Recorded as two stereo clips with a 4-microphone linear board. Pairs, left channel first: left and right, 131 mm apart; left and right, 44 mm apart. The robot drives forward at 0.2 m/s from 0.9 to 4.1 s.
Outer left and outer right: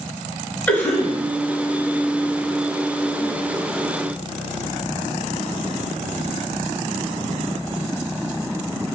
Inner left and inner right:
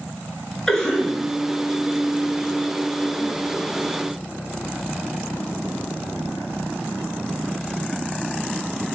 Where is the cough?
10° left (ahead or behind), 1.4 m.